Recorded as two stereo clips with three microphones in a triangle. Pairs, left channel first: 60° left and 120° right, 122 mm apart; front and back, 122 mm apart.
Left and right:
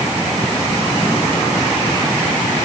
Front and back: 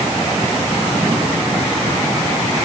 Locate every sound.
Only background noise.